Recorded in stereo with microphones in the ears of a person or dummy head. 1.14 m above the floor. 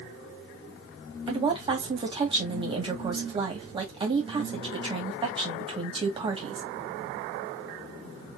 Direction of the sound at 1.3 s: 30° right (ahead or behind).